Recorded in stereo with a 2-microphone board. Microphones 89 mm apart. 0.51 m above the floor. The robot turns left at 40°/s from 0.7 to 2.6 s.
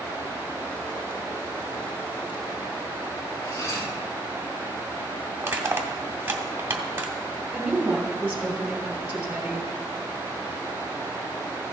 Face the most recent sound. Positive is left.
turn(degrees=-15)  # may be behind; listen again after turning